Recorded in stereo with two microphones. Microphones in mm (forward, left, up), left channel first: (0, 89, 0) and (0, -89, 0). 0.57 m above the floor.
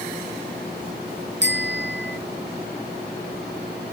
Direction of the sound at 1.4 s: 80° right.